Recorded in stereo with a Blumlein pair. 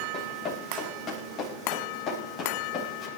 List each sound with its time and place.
0.1 s running footsteps: 25° left, 5 m; by 3.1 s 30° left, 6.5 m